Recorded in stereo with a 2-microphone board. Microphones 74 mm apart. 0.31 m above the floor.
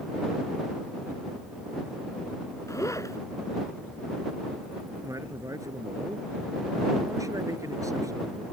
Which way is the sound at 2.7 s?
45° left (ahead or behind).